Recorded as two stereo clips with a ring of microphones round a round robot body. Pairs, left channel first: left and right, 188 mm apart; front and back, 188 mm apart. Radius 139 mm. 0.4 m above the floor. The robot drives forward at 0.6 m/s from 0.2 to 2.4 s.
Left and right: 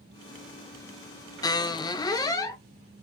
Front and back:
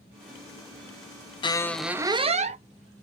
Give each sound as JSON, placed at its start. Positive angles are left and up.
{"t": 1.4, "sound": "a squeak", "azimuth_deg": 40, "distance_m": 0.6}